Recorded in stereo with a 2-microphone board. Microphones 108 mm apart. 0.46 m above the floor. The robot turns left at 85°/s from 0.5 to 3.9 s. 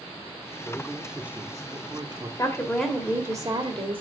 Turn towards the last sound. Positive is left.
turn(degrees=-85)